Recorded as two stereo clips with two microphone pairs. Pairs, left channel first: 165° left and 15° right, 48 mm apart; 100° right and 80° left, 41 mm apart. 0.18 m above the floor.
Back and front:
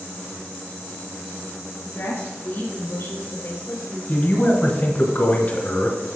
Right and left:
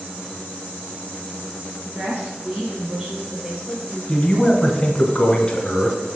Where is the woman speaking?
135° left, 2 m; by 4.0 s 165° left, 3 m.